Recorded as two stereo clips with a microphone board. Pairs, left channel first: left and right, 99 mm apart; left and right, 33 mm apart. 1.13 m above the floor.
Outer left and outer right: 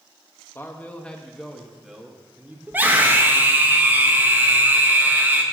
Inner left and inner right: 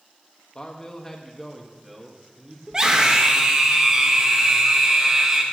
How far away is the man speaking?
About 1.3 m.